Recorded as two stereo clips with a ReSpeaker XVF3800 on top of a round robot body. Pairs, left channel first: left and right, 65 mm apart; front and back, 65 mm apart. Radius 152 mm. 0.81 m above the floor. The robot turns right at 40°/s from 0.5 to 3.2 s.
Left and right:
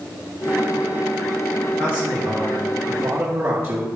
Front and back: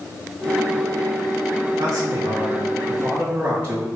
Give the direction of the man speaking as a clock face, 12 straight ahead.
6 o'clock.